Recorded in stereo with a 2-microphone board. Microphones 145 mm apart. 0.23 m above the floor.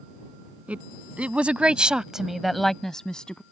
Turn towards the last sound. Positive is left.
turn(degrees=5)  # may be behind; listen again after turning